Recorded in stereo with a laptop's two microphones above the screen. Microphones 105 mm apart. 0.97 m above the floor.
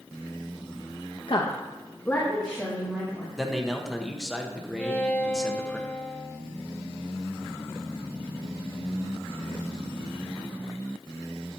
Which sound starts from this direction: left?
A woman speaking, at 1.3 s.